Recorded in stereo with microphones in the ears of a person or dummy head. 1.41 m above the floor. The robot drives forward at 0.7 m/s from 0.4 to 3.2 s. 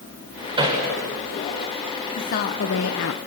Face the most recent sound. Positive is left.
turn(degrees=75)  # may be behind; listen again after turning